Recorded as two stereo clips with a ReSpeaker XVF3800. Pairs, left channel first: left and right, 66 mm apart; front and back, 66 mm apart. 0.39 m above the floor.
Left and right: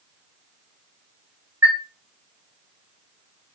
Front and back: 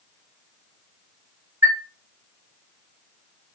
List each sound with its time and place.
1.6 s a chime: 140° right, 1.8 m